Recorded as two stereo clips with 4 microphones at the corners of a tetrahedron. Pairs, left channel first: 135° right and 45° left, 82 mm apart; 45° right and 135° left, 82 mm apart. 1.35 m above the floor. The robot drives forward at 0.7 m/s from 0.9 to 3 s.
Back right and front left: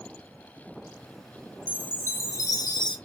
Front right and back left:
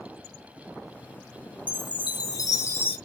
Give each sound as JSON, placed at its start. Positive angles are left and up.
{"t": 1.7, "sound": "a chime", "azimuth_deg": -60, "distance_m": 1.0}